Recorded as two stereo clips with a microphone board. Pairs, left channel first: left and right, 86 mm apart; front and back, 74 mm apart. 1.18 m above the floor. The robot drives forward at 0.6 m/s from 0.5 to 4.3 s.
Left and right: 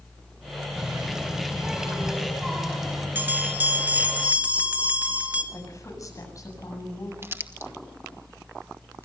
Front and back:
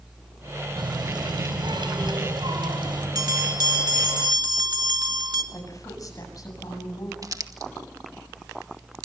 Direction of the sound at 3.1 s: 155° right.